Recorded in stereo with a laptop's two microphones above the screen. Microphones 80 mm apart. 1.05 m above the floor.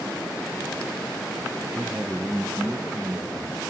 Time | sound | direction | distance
1.8 | a man speaking | 25° right (ahead or behind) | 0.7 m